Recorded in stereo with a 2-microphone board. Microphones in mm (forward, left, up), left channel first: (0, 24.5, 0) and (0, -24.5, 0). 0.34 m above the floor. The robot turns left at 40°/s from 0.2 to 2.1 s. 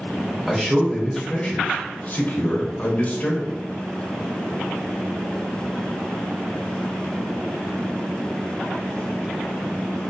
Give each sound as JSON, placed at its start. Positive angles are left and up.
{"t": 0.5, "sound": "a man speaking", "azimuth_deg": 175, "distance_m": 1.0}